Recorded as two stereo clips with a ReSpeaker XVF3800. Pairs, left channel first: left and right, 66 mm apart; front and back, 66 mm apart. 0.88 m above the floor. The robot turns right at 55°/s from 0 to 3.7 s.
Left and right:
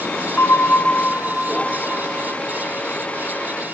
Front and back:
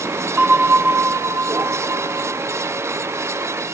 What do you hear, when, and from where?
0.4 s a bell: 115° left, 0.5 m; by 2.4 s 135° right, 0.5 m